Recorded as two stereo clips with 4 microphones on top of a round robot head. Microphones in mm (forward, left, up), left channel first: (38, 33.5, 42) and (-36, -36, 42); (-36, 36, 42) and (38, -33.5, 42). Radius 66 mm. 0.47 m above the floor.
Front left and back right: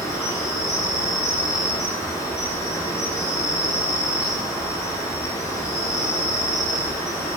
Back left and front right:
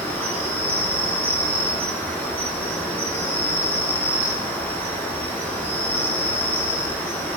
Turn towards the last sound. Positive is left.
turn(degrees=75)